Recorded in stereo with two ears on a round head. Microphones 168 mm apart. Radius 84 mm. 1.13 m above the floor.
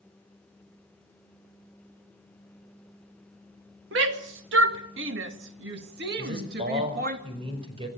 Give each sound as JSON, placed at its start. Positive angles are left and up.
{"t": 3.9, "sound": "a shout", "side_deg": -70, "distance_m": 2.5}
{"t": 6.2, "sound": "a man speaking", "side_deg": -30, "distance_m": 5.0}